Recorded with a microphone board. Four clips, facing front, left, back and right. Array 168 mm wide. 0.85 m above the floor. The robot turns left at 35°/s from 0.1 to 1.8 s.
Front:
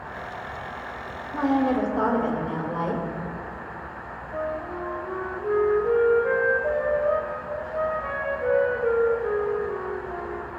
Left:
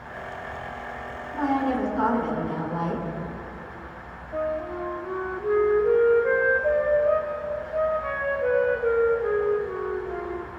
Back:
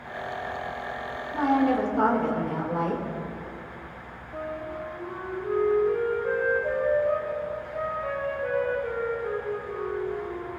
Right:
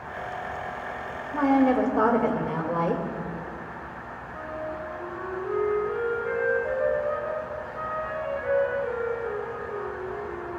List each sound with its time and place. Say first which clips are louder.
1.3 s a woman speaking: right 4 dB, even; 60° right, 3.5 m; by 3.0 s 75° right, 3.5 m
4.3 s a flute: left 7 dB, front 4 dB; 50° left, 3.5 m